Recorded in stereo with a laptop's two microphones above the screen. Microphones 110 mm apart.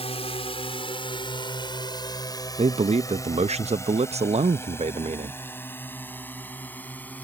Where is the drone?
65° left (ahead or behind); by 7.2 s 15° left (ahead or behind).